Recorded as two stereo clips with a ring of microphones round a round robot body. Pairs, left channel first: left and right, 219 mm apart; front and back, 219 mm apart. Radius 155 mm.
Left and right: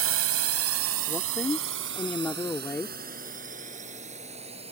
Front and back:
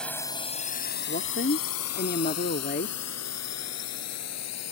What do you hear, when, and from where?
0.0 s a drone: 85° right; by 4.7 s 15° right
1.1 s a woman speaking: 15° left